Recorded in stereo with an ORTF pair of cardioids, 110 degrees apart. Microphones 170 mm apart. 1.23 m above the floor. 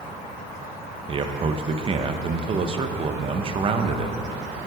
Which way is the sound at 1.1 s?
30° right.